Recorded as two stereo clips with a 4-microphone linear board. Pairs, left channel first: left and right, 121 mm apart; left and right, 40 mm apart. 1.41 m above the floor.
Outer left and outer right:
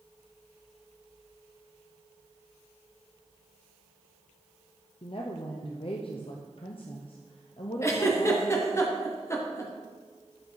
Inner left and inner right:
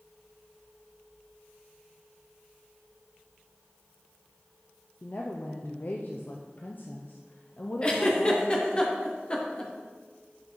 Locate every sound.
5.0 s a woman speaking: 50° left (ahead or behind), 0.5 m
7.8 s a giggle: 25° left (ahead or behind), 0.9 m